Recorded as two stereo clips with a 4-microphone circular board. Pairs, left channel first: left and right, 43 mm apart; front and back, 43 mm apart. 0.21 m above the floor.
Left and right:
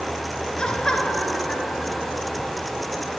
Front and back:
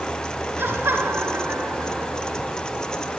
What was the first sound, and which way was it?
Laughter, 165° left.